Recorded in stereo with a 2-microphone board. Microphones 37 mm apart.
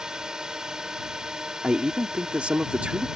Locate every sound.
0.0 s a drone: 15° right (ahead or behind)
1.6 s a man speaking: 35° right (ahead or behind)